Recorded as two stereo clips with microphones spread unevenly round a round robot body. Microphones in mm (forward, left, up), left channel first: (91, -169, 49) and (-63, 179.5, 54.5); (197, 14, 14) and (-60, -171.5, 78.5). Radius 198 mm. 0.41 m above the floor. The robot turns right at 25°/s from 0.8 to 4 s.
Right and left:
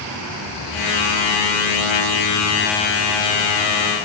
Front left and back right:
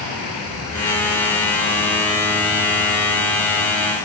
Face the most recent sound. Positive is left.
No sound to turn to.